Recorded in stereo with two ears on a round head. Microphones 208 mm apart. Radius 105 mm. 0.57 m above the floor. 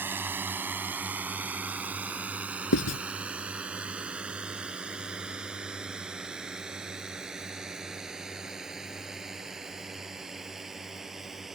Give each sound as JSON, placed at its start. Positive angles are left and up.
{"t": 0.0, "sound": "a drone", "side_deg": -10}
{"t": 2.7, "sound": "writing", "side_deg": 65}